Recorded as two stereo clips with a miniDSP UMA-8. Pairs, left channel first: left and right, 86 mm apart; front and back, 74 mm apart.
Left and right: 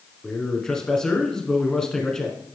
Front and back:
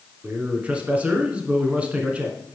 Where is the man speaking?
150° left, 1.2 m.